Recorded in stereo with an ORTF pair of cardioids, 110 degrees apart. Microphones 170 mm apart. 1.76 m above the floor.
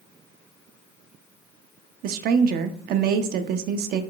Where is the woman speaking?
65° right, 0.6 m.